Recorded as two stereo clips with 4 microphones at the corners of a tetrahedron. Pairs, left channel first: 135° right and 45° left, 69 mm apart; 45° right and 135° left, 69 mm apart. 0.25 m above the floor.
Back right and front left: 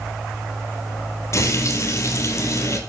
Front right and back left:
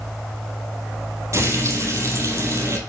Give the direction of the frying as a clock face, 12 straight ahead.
6 o'clock.